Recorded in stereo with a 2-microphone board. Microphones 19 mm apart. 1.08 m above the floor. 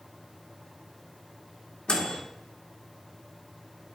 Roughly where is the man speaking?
No man speaking in this recording.